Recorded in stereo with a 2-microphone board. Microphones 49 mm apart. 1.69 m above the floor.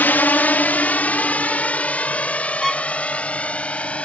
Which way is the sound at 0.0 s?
40° left (ahead or behind).